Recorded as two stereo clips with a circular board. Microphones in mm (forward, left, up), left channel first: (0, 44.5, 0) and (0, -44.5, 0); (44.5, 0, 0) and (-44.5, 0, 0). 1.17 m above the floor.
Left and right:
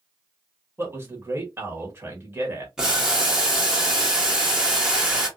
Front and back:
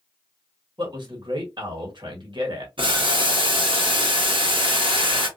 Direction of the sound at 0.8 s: 150° right.